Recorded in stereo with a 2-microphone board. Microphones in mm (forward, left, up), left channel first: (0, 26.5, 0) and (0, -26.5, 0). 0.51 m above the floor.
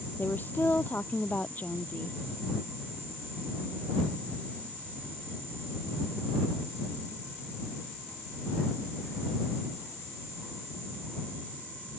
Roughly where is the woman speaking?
Left.